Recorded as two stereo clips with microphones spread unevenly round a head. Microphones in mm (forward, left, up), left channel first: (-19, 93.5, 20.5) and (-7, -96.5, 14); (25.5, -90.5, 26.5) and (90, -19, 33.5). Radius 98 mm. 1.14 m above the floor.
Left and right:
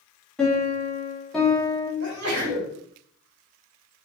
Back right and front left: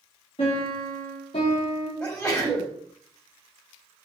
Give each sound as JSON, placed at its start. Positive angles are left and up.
{"t": 0.4, "sound": "a piano", "azimuth_deg": 180, "distance_m": 3.0}
{"t": 2.0, "sound": "a sneeze", "azimuth_deg": -55, "distance_m": 3.0}